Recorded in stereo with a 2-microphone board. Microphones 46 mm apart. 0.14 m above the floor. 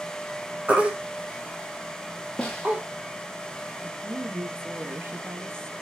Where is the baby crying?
25° right (ahead or behind), 1.9 m.